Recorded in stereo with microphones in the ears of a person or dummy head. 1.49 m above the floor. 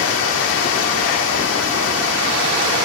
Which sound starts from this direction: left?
Running water, at 0.0 s.